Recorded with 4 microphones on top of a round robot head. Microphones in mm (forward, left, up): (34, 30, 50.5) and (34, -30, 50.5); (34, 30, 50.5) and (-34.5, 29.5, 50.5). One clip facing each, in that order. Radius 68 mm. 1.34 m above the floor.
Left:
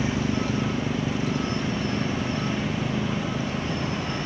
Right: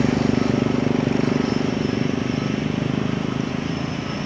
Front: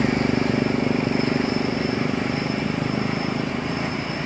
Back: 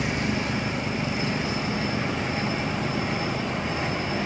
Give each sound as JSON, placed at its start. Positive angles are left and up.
{"t": 0.0, "sound": "a motorcycle", "azimuth_deg": -60}